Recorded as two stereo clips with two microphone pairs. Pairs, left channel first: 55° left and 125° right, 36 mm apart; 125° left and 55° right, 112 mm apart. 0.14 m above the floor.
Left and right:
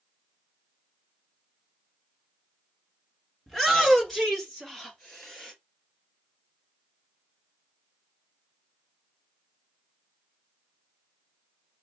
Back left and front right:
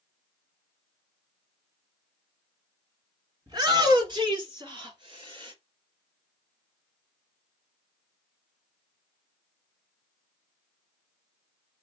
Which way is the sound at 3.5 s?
20° right.